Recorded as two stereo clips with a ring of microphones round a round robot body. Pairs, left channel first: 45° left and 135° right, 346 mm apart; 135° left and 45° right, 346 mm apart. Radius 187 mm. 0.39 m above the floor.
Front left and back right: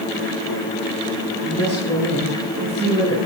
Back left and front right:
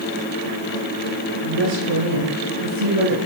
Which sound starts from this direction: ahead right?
A woman speaking, at 1.4 s.